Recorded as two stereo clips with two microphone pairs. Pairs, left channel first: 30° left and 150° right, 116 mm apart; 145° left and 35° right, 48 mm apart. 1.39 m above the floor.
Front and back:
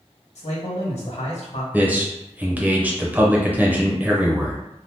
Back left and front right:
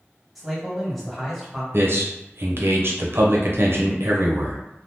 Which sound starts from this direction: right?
A man speaking, at 1.7 s.